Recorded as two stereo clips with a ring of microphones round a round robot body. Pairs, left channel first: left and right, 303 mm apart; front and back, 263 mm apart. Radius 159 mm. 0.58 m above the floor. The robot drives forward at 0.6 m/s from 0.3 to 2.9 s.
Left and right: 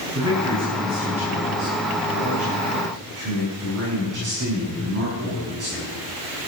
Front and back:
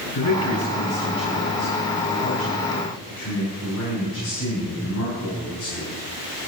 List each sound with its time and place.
0.1 s a man speaking: 40° right, 8 m; by 5.9 s 50° right, 6.5 m